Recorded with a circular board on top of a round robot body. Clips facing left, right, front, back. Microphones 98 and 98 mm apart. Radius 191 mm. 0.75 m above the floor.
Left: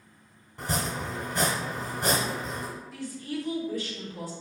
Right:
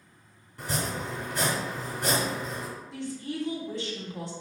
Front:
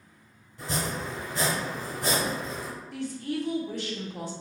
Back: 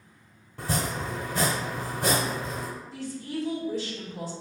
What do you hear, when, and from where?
0.6 s chopping: 155° left, 0.7 m
2.9 s a woman speaking: 25° right, 1.5 m